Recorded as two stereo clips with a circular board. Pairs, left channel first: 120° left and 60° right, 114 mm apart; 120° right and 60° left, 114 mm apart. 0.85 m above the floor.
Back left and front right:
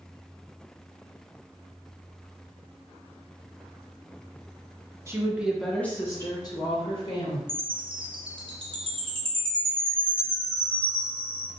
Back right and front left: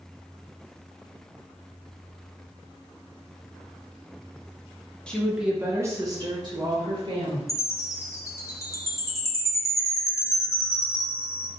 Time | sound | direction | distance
5.1 | a woman speaking | 50° right | 0.6 m
7.5 | a chime | 65° right | 0.6 m